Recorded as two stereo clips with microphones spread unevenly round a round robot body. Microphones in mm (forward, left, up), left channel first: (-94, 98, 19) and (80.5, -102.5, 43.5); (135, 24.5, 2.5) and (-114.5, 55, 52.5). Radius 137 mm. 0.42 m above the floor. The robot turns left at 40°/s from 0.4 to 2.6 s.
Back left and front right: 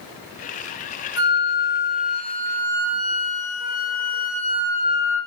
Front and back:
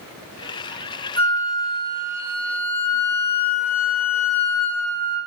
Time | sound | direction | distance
1.2 | a flute | 120° left | 0.8 m